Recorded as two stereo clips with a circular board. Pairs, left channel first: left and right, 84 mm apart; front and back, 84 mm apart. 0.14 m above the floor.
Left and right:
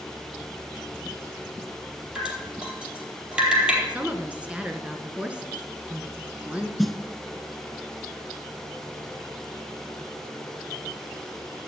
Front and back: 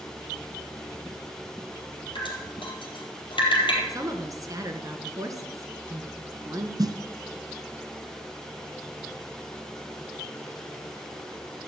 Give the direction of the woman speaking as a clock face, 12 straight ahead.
5 o'clock.